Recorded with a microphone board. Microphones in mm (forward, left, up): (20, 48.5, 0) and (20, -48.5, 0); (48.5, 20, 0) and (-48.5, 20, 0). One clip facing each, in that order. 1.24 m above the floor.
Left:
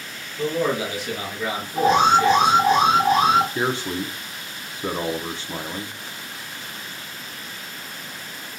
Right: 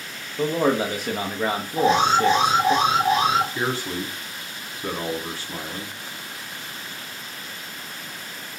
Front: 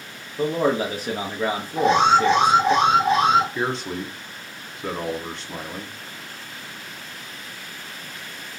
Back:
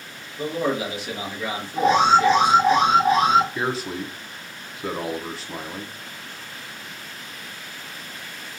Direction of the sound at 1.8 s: 95° left.